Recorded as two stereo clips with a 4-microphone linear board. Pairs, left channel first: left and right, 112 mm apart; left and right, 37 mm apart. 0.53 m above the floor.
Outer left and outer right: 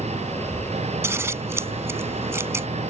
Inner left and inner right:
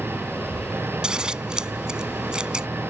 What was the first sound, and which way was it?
An engine running, 80° right.